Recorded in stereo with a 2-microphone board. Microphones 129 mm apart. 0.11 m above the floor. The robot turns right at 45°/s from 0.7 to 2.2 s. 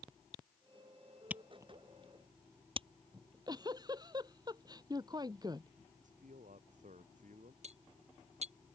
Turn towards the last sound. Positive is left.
turn(degrees=-60)  # may be behind; listen again after turning